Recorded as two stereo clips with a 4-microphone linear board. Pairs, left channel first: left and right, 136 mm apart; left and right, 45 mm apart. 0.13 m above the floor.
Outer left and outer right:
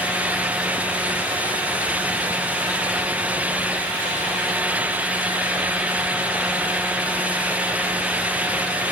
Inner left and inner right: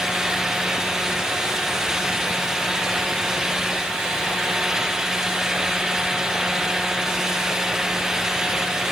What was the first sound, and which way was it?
Only background noise.